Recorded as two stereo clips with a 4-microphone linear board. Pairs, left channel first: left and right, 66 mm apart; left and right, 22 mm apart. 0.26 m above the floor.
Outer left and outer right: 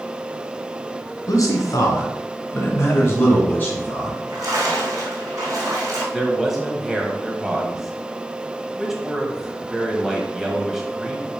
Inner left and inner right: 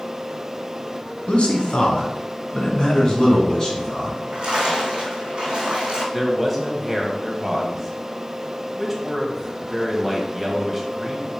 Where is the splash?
55° right (ahead or behind), 3 m.